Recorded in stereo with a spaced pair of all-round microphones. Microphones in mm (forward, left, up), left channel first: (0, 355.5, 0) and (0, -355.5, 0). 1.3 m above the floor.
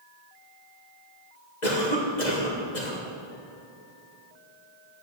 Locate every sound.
1.6 s a cough: 75° left (ahead or behind), 2 m